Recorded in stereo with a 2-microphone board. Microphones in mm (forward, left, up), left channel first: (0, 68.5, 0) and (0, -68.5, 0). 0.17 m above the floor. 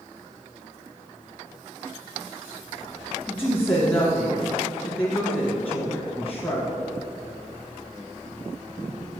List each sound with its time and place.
3.3 s a woman speaking: 10° left (ahead or behind), 2 m